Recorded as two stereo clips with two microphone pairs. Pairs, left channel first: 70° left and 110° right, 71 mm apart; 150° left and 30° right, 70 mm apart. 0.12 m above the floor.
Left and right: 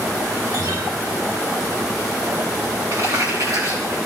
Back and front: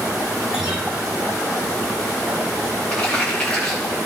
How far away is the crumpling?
About 5 m.